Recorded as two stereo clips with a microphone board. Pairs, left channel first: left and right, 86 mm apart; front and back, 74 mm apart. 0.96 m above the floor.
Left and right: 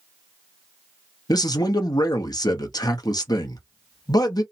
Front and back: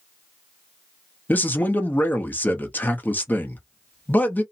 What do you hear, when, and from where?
1.3 s a man speaking: 60° left, 0.7 m